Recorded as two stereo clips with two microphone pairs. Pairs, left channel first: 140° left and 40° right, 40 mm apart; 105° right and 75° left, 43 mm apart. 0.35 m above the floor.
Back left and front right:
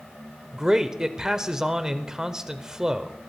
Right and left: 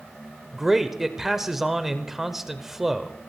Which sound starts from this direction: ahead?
A man speaking, at 0.5 s.